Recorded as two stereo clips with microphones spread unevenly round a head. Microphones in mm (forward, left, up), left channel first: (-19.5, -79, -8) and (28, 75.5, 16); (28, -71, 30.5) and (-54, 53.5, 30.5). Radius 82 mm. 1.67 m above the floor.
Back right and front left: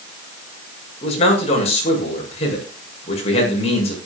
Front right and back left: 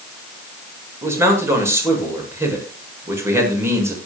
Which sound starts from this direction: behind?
A man speaking, at 1.0 s.